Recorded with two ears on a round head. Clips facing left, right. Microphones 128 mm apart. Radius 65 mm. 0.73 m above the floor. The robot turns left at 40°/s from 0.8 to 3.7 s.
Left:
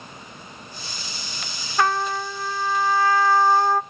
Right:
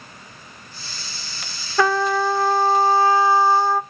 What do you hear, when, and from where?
1.8 s a trumpet: 100° right, 0.5 m; by 3.8 s 175° right, 0.5 m